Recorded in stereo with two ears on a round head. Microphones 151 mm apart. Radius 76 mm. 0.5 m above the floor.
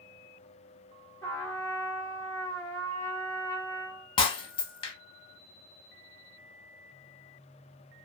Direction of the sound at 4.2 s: 30° left (ahead or behind).